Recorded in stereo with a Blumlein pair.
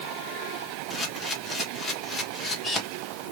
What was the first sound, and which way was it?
A camera shutter, 15° left.